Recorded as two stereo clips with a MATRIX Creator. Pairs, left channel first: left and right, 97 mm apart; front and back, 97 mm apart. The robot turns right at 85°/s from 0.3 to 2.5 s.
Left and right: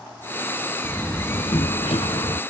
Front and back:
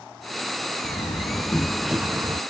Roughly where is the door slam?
Ahead.